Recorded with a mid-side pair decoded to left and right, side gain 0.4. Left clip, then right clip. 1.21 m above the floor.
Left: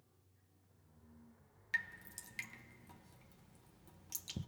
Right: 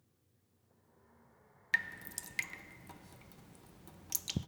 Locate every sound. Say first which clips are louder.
1.7 s dripping: right 5 dB; 65° right, 0.7 m